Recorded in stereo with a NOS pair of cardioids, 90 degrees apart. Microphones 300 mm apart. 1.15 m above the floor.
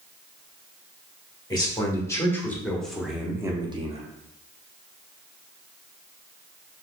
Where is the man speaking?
15° left, 1.7 m; by 4.0 s 30° right, 0.7 m.